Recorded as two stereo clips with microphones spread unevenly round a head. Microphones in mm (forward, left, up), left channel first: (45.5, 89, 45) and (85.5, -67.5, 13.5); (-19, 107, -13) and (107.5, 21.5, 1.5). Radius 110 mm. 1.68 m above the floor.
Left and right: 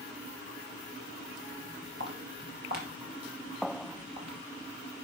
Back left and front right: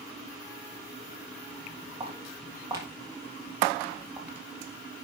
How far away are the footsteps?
About 2.5 m.